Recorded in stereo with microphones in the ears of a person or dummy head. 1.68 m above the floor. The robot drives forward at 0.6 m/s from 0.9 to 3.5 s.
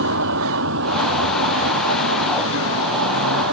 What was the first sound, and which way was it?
A vehicle, 75° right (ahead or behind).